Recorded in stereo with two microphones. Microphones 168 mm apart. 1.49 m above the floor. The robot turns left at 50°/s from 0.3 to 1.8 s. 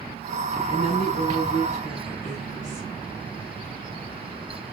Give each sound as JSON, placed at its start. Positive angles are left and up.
{"t": 0.7, "sound": "a woman speaking", "azimuth_deg": 115, "distance_m": 5.5}